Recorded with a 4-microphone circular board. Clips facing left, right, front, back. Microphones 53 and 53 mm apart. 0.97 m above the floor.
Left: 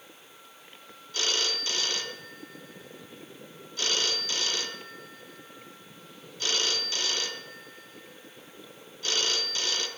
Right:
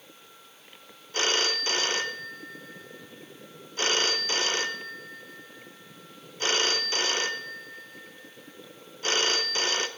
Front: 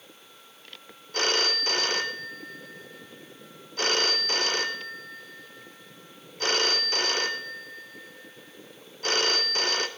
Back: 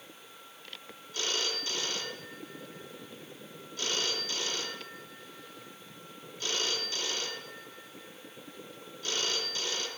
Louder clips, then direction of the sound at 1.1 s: Right 4 dB, front 8 dB; 35° right.